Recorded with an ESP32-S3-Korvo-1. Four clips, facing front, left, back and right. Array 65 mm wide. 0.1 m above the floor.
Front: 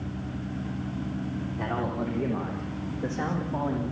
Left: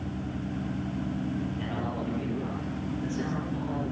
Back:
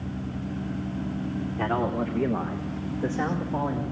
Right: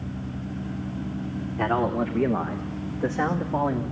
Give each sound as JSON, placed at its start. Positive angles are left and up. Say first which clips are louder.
{"t": 1.6, "sound": "a man speaking", "louder": "right 9 dB, back 4 dB", "azimuth_deg": -115, "distance_m": 6.5}